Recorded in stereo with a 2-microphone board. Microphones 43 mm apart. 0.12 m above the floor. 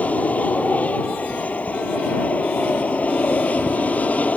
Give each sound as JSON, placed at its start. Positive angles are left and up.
{"t": 0.0, "sound": "an aircraft", "side_deg": 35}